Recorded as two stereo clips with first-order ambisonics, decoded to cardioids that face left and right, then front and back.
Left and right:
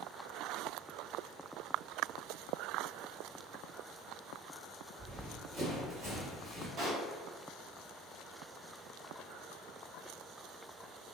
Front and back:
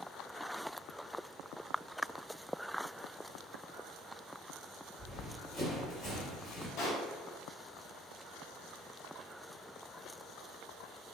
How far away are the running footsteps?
About 1.9 m.